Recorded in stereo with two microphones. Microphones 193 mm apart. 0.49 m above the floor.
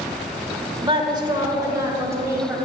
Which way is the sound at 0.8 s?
25° right (ahead or behind).